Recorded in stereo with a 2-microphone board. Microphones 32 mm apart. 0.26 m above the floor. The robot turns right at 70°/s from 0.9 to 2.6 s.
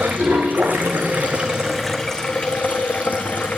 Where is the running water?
65° right, 2 m; by 3.6 s 55° left, 2 m.